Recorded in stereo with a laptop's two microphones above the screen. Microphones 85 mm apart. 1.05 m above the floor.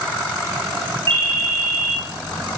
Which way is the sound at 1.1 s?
70° right (ahead or behind).